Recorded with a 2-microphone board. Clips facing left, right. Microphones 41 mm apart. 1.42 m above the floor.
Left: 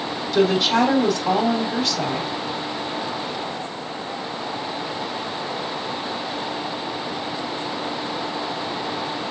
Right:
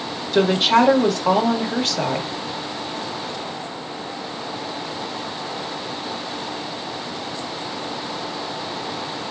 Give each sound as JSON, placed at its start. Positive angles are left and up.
{"t": 0.3, "sound": "a woman speaking", "side_deg": -35, "distance_m": 1.7}